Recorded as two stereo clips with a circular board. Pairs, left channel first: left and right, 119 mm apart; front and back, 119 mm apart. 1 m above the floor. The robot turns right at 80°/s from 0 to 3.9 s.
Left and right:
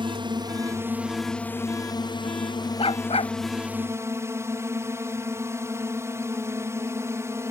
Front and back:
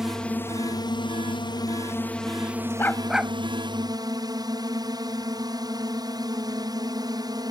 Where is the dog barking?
65° left; by 3.3 s 110° left.